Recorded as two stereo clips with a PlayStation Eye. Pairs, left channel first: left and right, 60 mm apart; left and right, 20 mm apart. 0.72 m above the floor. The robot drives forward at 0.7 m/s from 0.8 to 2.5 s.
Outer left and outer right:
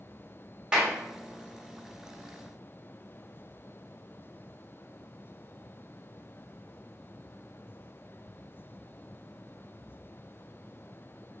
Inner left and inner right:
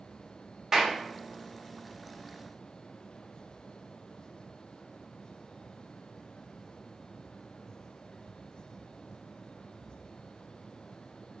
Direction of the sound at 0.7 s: 15° right (ahead or behind).